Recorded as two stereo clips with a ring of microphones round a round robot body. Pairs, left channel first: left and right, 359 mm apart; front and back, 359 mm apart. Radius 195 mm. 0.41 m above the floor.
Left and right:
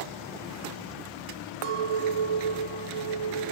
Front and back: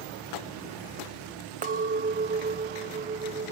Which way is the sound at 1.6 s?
110° right.